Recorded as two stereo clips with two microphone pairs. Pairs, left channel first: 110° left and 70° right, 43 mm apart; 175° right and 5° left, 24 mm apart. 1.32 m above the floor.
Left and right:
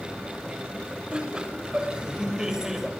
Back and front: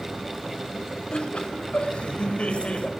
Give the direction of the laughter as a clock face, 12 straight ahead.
5 o'clock.